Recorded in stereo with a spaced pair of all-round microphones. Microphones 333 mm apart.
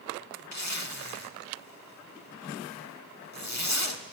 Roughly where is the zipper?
Left.